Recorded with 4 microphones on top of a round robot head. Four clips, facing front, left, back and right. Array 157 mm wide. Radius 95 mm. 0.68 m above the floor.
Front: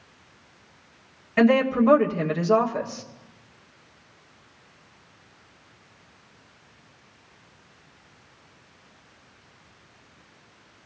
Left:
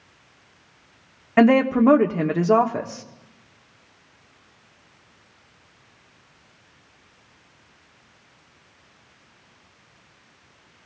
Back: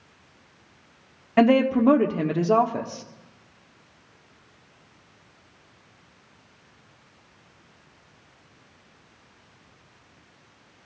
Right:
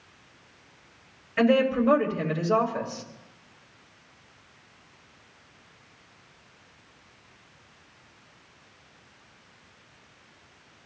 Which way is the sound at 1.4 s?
115° left.